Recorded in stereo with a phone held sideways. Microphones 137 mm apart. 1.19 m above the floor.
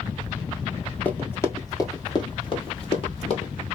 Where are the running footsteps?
10° left (ahead or behind), 1.3 m; by 3.5 s 50° left (ahead or behind), 1.8 m.